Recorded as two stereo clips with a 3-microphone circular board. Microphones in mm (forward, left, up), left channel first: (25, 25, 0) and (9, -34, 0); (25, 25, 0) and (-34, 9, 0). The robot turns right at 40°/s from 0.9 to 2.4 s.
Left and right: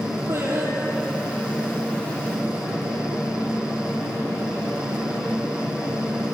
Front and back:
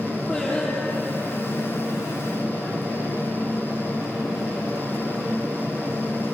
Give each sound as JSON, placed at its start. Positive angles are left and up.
{"t": 0.3, "sound": "singing", "azimuth_deg": -55, "distance_m": 7.0}